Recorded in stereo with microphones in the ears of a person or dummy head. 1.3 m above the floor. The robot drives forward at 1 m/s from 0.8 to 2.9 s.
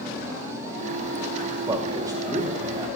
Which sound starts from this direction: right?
A man speaking, at 1.7 s.